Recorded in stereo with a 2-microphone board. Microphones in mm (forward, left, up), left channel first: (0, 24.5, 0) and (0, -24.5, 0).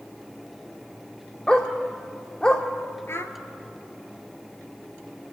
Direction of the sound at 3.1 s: 55° left (ahead or behind).